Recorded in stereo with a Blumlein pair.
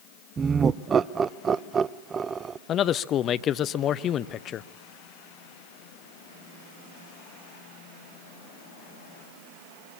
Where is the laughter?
20° right, 0.5 m.